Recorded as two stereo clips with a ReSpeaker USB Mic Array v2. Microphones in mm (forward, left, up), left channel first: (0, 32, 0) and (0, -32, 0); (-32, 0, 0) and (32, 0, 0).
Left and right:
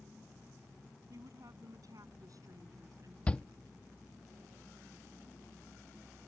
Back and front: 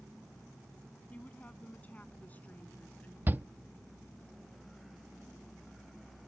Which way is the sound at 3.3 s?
35° left.